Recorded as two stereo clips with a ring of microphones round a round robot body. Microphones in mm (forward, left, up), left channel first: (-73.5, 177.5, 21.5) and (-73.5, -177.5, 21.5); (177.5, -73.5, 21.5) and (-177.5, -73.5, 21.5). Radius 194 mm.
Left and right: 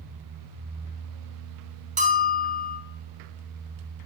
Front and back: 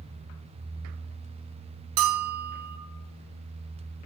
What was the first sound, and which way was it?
A bell, 160° right.